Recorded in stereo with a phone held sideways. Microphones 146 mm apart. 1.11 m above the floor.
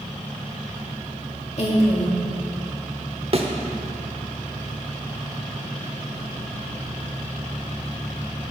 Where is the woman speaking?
50° left (ahead or behind), 2.5 m.